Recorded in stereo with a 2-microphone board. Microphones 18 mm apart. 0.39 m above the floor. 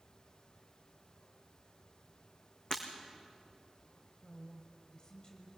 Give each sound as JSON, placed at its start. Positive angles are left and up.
{"t": 2.7, "sound": "breaking glass", "side_deg": 40, "distance_m": 3.5}
{"t": 4.2, "sound": "a woman speaking", "side_deg": 40, "distance_m": 2.0}